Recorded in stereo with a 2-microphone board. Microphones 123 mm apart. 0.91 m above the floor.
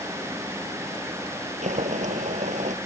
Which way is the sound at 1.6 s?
75° right (ahead or behind).